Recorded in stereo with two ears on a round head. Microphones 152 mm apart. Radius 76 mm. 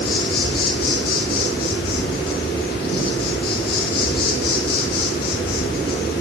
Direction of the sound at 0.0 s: 60° left (ahead or behind).